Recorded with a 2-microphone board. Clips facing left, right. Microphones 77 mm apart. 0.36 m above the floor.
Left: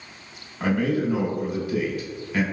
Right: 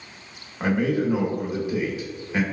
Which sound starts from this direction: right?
A man speaking, at 0.6 s.